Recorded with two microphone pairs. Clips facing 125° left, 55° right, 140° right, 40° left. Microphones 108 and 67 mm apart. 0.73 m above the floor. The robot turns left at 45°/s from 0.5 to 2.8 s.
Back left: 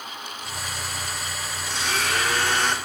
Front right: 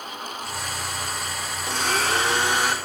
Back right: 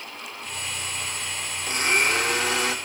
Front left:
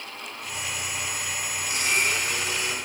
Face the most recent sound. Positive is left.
turn(degrees=-140)